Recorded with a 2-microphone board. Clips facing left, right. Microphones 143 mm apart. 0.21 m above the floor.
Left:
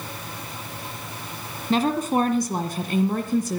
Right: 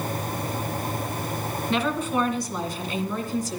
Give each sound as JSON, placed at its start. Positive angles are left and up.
{"t": 1.7, "sound": "a woman speaking", "side_deg": 40, "distance_m": 1.7}